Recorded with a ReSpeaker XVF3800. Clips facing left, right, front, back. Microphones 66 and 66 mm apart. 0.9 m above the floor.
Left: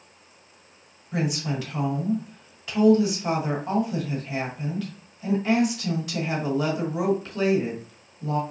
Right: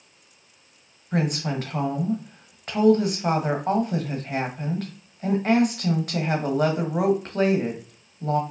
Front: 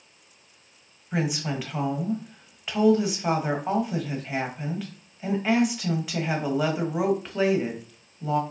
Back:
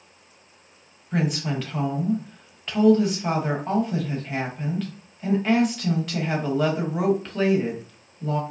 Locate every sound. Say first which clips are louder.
1.1 s a woman speaking: right 2 dB, back 2 dB; 75° right, 1.3 m